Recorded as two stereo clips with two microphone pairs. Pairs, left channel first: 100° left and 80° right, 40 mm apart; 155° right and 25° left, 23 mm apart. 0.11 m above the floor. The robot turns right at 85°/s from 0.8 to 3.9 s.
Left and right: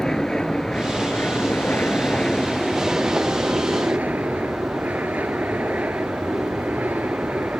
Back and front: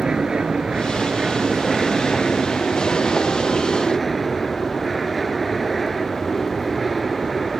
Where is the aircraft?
35° left; by 7.6 s 65° right.